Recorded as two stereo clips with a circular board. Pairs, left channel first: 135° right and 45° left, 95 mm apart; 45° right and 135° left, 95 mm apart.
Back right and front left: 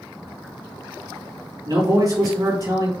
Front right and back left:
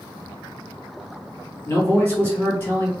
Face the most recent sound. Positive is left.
turn(degrees=15)